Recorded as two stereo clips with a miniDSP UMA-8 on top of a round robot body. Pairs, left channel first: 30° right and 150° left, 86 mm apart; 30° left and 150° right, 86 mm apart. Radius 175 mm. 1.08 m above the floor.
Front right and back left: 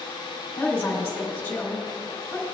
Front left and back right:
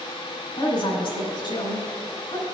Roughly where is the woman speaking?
Ahead left.